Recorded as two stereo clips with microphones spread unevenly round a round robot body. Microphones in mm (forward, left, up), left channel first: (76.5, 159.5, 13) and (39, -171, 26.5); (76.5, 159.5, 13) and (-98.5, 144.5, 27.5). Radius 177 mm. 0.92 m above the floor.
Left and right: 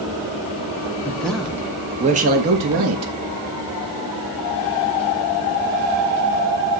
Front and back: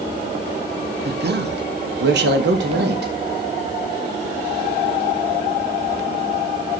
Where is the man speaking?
165° left, 1.4 m; by 3.1 s 140° right, 1.5 m.